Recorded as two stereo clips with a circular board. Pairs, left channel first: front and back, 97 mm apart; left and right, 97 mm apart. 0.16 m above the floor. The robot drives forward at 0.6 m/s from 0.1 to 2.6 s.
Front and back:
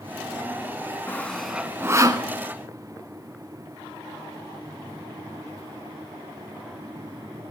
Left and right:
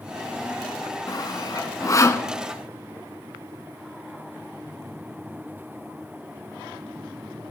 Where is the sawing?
60° left, 0.6 m; by 2.3 s 145° left, 0.7 m.